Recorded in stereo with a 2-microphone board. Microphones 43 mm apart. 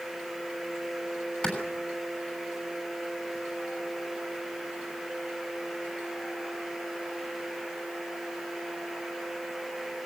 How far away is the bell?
No bell in this recording.